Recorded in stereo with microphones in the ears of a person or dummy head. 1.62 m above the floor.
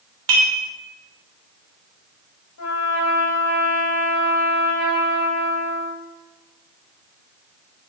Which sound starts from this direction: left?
A trumpet, at 2.6 s.